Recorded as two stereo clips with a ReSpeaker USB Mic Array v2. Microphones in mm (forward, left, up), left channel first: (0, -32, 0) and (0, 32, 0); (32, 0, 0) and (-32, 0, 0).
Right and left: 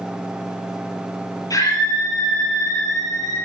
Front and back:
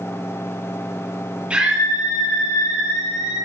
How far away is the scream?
About 7.5 m.